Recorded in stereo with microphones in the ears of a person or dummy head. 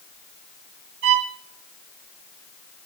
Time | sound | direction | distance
1.0 | a violin | 65° right (ahead or behind) | 2 m